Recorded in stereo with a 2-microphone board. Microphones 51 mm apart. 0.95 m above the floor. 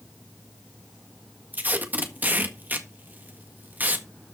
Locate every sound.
1.5 s tape being pulled: 35° right (ahead or behind), 1.6 m